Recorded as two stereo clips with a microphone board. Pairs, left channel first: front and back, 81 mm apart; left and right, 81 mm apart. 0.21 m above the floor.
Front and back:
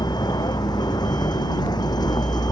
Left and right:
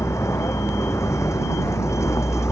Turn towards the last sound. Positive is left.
turn(degrees=35)